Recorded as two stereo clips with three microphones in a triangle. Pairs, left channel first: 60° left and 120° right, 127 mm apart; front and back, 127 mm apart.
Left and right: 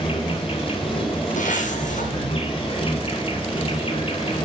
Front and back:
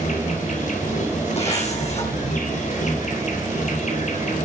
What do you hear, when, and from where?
0.0 s an insect: 15° left, 3 m
1.4 s a zipper: 40° left, 6 m